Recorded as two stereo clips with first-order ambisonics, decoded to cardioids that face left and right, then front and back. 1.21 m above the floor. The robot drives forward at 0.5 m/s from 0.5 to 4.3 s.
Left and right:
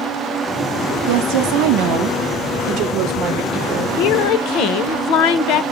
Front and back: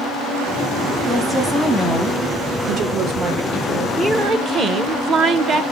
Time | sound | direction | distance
1.1 | a woman speaking | 85° right | 1.0 m
4.0 | a woman speaking | 105° left | 0.5 m